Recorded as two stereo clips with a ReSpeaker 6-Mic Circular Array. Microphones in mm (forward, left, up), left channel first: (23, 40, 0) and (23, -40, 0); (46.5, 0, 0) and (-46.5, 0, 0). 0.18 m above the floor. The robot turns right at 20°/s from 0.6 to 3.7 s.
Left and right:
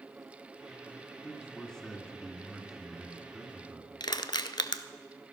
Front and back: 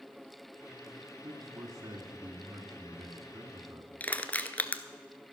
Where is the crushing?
70° left, 0.6 m.